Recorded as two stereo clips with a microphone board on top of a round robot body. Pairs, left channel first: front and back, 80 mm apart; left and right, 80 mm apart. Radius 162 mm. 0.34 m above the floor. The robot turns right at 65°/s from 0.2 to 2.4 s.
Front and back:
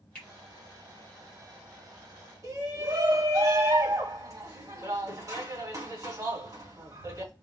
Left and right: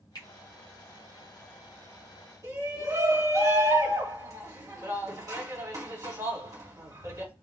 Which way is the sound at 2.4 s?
140° right.